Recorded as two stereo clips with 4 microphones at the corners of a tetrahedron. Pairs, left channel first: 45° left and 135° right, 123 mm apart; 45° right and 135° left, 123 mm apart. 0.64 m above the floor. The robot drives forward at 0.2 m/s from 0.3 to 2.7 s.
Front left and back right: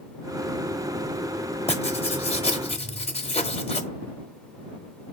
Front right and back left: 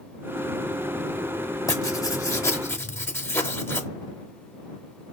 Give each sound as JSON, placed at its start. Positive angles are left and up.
{"t": 1.7, "sound": "writing", "azimuth_deg": 15, "distance_m": 0.6}